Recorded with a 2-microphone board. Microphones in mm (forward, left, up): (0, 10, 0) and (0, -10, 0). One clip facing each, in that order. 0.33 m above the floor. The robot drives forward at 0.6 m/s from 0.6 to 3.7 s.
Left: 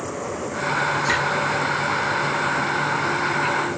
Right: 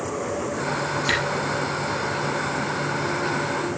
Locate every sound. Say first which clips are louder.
1.1 s a camera shutter: right 1 dB; 60° right (ahead or behind), 5 m